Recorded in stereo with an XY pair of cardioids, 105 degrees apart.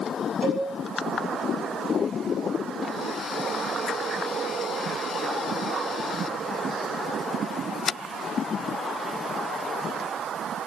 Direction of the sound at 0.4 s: 25° right.